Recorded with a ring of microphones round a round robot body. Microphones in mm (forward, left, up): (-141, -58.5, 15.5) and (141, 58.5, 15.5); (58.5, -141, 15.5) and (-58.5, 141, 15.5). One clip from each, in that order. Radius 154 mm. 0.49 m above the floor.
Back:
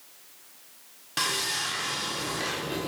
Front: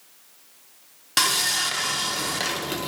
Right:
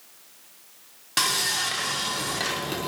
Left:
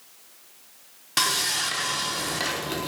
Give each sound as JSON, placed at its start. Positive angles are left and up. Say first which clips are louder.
{"t": 1.2, "sound": "sawing", "louder": "front 6 dB, even", "azimuth_deg": 25, "distance_m": 0.8}